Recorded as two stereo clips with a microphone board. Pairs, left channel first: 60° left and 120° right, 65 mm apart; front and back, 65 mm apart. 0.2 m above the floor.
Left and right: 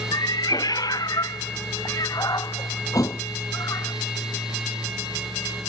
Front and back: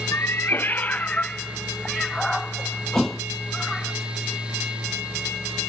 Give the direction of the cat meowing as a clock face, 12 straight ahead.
10 o'clock.